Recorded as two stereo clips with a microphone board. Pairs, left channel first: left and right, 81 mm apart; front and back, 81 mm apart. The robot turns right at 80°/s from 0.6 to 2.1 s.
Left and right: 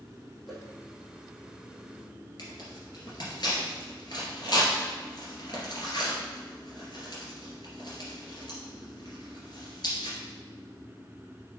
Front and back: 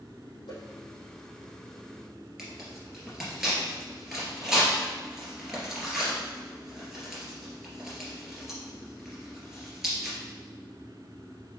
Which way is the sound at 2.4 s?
95° left.